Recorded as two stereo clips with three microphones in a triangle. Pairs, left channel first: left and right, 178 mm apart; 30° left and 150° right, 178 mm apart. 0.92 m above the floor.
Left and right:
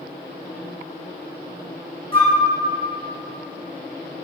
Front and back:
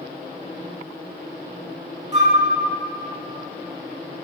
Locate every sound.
2.1 s a flute: 150° left, 1.6 m